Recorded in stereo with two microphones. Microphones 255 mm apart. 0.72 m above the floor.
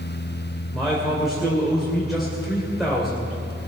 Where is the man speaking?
Centre (ahead or behind), 2.5 m.